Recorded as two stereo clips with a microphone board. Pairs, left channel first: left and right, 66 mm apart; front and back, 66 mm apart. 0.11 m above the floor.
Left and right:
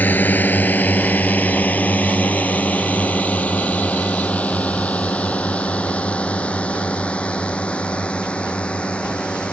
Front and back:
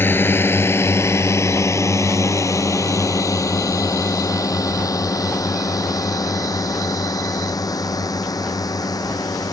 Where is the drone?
45° left; by 9.5 s 20° left.